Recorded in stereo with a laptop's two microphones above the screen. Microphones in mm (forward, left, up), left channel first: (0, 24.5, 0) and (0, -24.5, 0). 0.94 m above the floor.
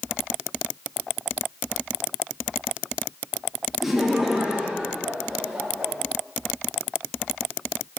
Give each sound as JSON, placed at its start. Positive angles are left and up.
{"t": 3.8, "sound": "laughter", "side_deg": 0, "distance_m": 1.3}